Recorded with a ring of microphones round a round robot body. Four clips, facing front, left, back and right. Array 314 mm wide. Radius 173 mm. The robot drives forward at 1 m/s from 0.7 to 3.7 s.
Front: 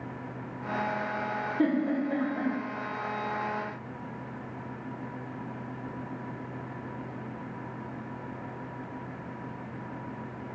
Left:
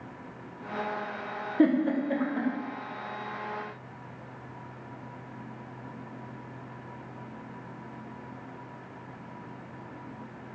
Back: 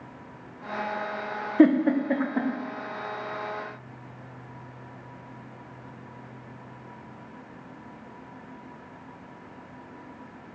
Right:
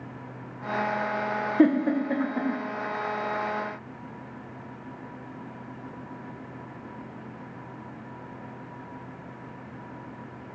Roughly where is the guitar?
I don't hear a guitar.